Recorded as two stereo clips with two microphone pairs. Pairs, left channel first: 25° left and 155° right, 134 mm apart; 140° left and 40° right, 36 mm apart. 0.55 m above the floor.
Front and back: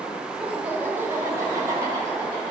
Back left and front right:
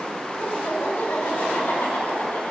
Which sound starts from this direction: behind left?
Laughter, at 0.4 s.